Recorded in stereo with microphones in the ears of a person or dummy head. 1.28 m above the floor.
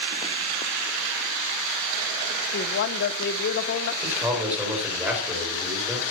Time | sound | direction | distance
2.5 | a woman speaking | 50° left (ahead or behind) | 0.9 m
4.0 | a man speaking | 10° right (ahead or behind) | 4.5 m